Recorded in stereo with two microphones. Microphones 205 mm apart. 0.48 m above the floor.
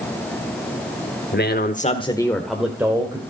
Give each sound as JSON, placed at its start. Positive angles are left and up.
{"t": 1.3, "sound": "a man speaking", "side_deg": 55, "distance_m": 1.5}